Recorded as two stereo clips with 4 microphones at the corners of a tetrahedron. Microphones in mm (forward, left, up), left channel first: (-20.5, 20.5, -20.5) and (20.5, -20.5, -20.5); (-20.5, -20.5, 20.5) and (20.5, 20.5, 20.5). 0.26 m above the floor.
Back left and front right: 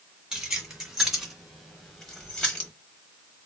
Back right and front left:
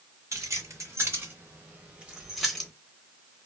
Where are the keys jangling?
30° left, 1.7 m; by 2.7 s 160° left, 1.0 m.